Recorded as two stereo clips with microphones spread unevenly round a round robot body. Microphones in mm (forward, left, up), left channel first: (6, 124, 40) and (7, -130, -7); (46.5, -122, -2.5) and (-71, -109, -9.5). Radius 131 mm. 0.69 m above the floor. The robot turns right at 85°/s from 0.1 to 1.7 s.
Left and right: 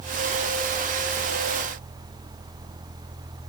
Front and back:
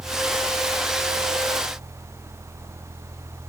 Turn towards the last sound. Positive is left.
No sound to turn to.